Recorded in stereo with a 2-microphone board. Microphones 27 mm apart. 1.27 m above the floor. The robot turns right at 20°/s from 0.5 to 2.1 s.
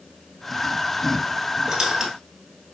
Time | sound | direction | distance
1.7 | a squeak | 30° right (ahead or behind) | 1.4 m